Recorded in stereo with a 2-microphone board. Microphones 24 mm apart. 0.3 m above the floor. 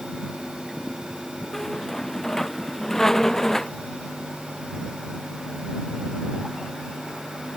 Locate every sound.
1.5 s a squeak: 15° left (ahead or behind)